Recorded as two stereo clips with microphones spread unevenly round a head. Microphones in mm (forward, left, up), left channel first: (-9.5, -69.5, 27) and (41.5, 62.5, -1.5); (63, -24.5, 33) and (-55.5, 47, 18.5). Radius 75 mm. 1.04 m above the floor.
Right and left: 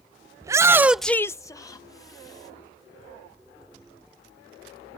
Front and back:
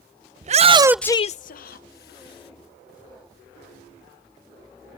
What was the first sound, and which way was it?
A shout, 130° left.